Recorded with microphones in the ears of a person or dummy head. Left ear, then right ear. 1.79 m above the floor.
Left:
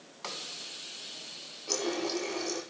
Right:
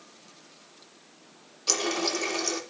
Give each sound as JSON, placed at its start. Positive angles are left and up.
{"t": 1.7, "sound": "a running tap", "side_deg": -65, "distance_m": 3.0}